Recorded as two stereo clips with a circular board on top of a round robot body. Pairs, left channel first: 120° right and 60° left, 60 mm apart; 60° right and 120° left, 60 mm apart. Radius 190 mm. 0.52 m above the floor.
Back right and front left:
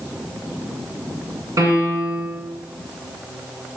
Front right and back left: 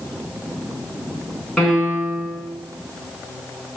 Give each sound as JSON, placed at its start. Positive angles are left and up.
{"t": 1.6, "sound": "a piano", "azimuth_deg": 25, "distance_m": 2.5}